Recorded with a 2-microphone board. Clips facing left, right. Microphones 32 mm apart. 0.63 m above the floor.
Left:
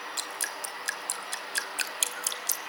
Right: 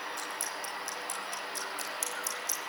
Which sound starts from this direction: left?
Dripping, at 0.2 s.